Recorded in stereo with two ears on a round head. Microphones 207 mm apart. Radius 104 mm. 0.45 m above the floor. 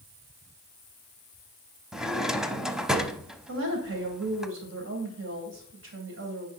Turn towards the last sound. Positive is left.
turn(degrees=-55)  # may be behind; listen again after turning